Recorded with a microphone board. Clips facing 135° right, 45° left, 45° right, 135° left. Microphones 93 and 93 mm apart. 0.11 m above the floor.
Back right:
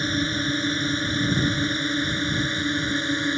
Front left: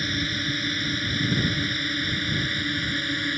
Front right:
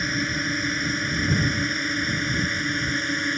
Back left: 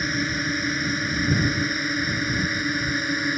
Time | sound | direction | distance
0.0 | a drone | 140° right | ?